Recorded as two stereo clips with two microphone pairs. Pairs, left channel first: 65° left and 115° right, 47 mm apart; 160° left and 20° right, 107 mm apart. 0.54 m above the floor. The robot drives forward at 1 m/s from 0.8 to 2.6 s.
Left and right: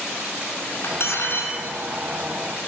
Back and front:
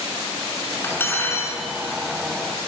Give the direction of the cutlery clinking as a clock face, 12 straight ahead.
9 o'clock.